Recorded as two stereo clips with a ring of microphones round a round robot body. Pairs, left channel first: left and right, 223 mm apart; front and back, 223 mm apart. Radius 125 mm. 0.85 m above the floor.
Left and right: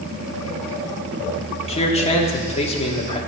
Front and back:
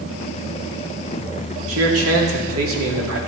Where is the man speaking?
155° left, 2 m.